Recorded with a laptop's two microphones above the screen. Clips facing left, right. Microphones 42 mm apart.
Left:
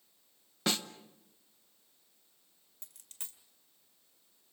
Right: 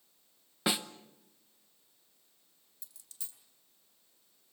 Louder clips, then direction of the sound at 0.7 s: Right 1 dB; 15° right (ahead or behind).